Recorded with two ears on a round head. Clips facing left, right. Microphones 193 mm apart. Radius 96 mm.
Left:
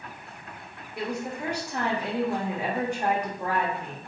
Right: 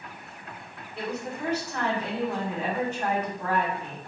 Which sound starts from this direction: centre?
A woman speaking, at 1.0 s.